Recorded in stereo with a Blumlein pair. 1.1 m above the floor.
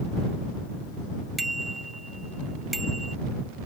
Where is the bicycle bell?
5° right.